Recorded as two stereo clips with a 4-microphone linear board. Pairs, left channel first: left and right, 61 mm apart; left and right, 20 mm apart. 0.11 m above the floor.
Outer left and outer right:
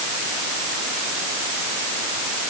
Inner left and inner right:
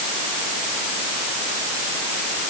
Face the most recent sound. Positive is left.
No sound to turn to.